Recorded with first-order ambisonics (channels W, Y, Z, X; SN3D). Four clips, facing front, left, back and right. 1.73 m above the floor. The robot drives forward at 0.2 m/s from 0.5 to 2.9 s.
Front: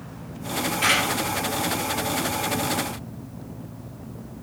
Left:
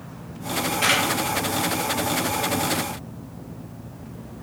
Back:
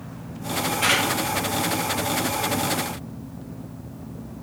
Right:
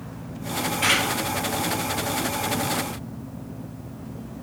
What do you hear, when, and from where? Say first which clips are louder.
0.8 s a camera shutter: even, even; 85° left, 1.3 m